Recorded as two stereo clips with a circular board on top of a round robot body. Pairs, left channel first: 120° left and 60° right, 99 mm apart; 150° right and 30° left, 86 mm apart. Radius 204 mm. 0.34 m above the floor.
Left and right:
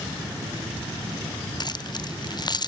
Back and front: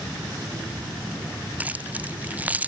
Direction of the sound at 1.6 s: 100° left.